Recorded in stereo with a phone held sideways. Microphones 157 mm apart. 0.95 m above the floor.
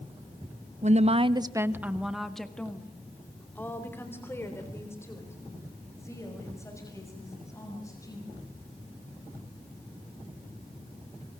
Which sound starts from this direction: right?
A woman speaking, at 0.8 s.